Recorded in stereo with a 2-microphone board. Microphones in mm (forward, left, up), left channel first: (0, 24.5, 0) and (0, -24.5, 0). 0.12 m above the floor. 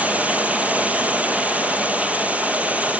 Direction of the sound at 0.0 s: 25° right (ahead or behind).